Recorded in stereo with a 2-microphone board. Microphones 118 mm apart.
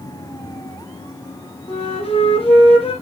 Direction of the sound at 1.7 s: 55° left (ahead or behind).